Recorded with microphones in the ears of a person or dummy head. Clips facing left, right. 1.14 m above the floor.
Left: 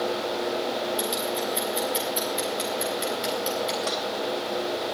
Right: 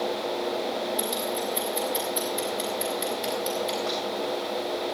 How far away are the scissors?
About 7 m.